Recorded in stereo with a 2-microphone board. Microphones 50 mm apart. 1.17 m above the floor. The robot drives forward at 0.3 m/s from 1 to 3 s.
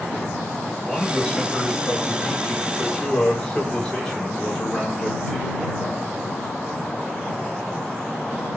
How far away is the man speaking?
About 5 m.